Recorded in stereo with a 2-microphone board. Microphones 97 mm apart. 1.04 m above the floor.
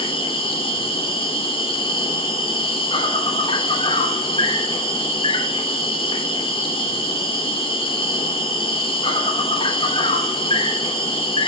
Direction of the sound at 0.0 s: 65° left (ahead or behind).